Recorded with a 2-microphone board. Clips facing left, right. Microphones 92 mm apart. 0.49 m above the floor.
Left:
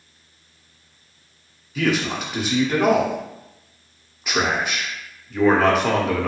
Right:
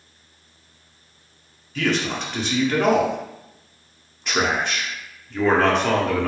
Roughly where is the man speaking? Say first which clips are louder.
Left 1 dB; centre.